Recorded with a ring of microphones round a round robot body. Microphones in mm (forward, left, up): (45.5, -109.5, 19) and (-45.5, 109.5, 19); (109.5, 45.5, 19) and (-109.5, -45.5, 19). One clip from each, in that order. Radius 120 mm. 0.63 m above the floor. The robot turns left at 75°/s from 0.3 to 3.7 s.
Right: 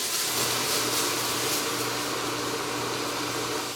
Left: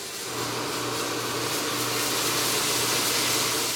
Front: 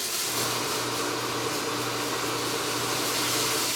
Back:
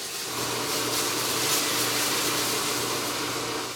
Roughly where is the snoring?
No snoring in this recording.